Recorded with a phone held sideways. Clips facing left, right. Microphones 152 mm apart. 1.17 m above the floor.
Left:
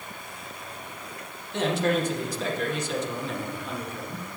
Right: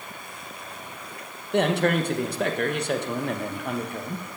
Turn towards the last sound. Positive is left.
turn(degrees=-65)  # may be behind; listen again after turning